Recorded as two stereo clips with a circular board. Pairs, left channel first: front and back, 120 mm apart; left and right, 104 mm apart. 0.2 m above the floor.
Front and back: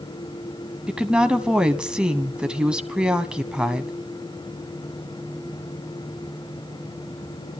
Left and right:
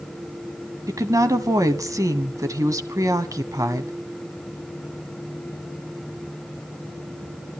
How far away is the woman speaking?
About 1.2 m.